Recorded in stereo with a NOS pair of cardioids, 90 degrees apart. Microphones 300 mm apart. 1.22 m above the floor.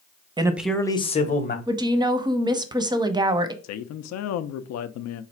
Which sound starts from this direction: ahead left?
A man speaking, at 3.6 s.